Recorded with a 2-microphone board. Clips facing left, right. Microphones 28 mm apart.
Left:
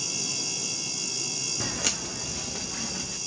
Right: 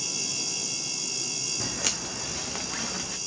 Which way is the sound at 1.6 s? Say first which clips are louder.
Left 2 dB; 15° left (ahead or behind).